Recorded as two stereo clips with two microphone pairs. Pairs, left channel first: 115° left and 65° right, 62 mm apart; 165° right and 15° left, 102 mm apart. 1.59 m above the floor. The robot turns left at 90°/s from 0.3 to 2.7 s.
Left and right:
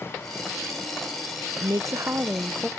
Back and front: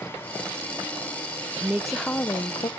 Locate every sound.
1.6 s a woman speaking: 50° right, 0.7 m; by 2.7 s 150° right, 0.7 m